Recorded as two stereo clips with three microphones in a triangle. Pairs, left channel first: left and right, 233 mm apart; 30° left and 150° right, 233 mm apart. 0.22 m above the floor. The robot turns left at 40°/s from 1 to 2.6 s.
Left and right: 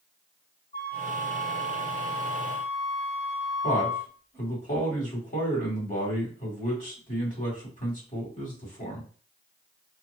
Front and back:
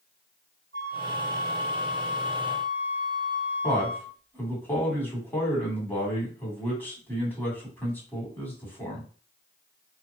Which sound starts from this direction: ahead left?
A flute, at 0.7 s.